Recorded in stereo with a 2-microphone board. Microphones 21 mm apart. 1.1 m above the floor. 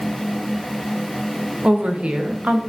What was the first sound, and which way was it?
A woman speaking, 85° right.